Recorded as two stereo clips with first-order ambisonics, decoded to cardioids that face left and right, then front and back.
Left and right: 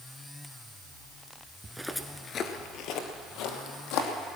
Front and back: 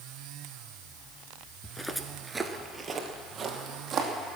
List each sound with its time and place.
1.6 s footsteps: 55° right, 0.9 m; by 4.1 s 110° left, 2.5 m